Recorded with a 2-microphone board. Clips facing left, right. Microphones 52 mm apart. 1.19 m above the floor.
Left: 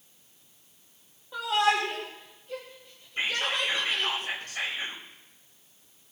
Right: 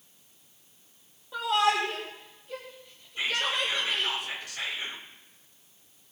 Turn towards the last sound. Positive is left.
turn(degrees=40)  # may be behind; listen again after turning